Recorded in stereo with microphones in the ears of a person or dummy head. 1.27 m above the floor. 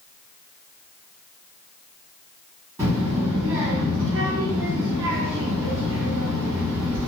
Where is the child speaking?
15° right (ahead or behind), 1.6 m.